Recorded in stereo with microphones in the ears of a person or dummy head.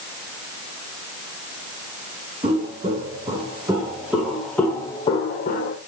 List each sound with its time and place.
2.4 s footsteps: 30° right (ahead or behind), 4.5 m; by 5.8 s 55° left (ahead or behind), 2 m